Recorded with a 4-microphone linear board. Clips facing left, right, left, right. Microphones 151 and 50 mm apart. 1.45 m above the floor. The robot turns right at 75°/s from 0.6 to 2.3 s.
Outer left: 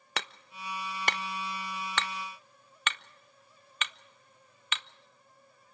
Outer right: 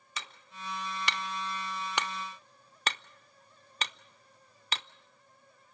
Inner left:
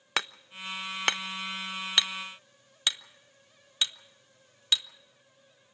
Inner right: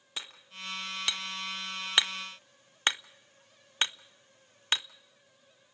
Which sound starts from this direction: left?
Hammering, at 0.2 s.